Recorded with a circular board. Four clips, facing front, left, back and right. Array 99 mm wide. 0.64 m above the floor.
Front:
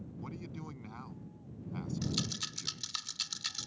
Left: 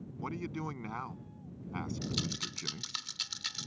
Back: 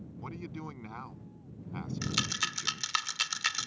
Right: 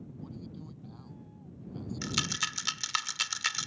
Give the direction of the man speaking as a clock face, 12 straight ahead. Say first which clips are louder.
Left 9 dB, back 4 dB; 8 o'clock.